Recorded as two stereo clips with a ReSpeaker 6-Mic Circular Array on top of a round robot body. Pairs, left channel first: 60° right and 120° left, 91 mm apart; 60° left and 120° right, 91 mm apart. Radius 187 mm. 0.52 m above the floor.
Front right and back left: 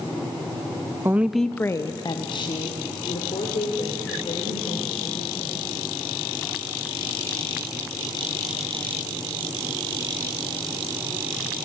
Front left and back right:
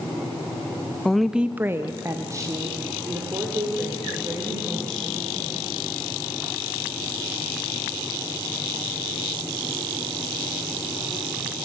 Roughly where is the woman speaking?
Behind left.